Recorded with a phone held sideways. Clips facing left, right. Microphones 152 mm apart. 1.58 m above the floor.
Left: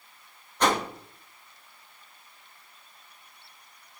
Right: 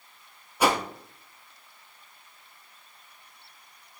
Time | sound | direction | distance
0.6 | a whoosh | 10° right (ahead or behind) | 0.6 m